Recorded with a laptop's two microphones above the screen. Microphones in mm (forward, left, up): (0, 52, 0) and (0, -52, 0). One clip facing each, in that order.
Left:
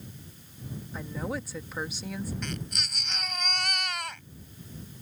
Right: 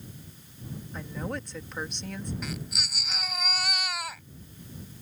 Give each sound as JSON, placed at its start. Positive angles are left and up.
{"t": 0.9, "sound": "a woman speaking", "side_deg": 5}
{"t": 2.4, "sound": "a baby crying", "side_deg": -5}